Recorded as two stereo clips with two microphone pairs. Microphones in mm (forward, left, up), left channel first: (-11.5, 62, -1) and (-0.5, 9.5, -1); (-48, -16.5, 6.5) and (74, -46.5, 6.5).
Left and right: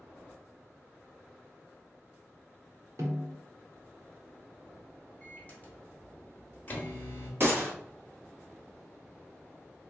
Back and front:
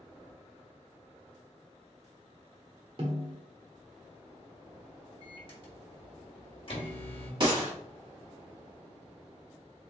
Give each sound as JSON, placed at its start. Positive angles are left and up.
{"t": 3.0, "sound": "a snare drum", "azimuth_deg": -60, "distance_m": 1.2}
{"t": 5.2, "sound": "a microwave", "azimuth_deg": 145, "distance_m": 1.0}
{"t": 7.4, "sound": "a gunshot", "azimuth_deg": -50, "distance_m": 1.4}